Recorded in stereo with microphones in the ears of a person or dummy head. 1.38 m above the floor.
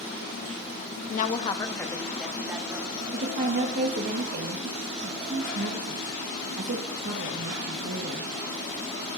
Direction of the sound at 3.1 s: 55° right (ahead or behind).